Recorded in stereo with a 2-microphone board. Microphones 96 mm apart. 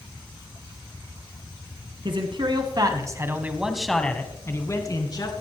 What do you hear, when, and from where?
2.0 s a man speaking: 60° right (ahead or behind), 2 m; by 5.3 s 45° left (ahead or behind), 2.5 m